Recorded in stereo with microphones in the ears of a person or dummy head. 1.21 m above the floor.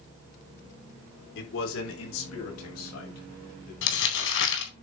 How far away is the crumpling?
About 4 m.